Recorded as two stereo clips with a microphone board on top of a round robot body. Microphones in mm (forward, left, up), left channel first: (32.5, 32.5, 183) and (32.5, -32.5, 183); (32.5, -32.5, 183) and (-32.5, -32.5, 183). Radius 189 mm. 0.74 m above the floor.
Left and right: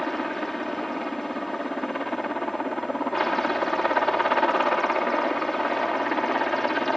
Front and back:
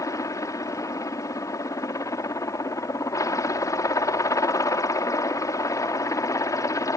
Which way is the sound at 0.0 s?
Straight ahead.